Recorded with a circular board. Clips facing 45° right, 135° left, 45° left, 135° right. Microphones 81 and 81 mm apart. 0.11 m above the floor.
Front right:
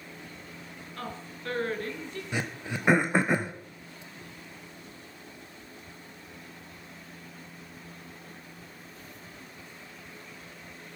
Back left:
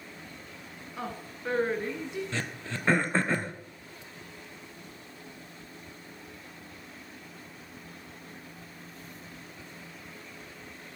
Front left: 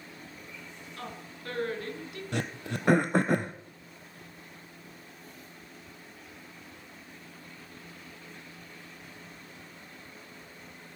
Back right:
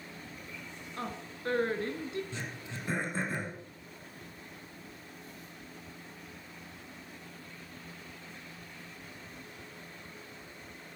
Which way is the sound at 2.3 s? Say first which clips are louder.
Front right 2 dB, front left 7 dB; 30° left.